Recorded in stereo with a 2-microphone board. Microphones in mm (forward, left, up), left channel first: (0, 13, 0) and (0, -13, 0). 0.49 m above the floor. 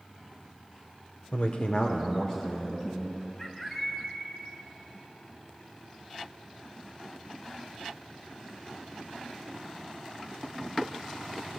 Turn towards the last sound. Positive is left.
turn(degrees=20)  # may be behind; listen again after turning